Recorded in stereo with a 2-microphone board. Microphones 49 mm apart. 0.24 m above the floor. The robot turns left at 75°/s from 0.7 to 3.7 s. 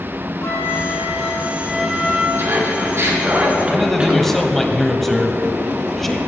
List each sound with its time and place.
0.4 s a flute: 70° left, 2 m; by 2.3 s 50° right, 2 m
2.4 s laughter: 60° right, 3 m; by 4.7 s 155° right, 3 m
3.7 s a man speaking: 5° left (ahead or behind), 1.0 m